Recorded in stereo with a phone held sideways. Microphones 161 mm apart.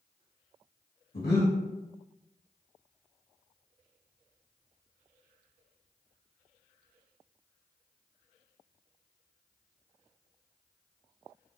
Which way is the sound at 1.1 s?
90° left.